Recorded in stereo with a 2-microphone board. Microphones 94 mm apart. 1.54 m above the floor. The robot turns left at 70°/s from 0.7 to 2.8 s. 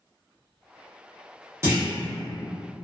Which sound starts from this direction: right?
A clunk, at 1.6 s.